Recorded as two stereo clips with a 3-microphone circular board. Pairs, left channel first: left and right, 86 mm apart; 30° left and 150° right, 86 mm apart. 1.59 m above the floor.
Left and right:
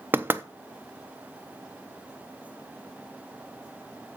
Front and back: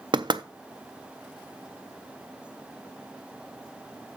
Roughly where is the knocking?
Behind right.